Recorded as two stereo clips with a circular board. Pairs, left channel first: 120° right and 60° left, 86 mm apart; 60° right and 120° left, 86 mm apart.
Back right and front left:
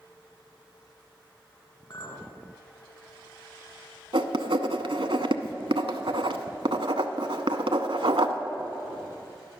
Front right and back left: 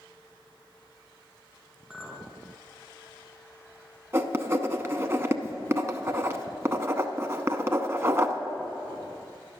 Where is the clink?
155° right, 1.5 m.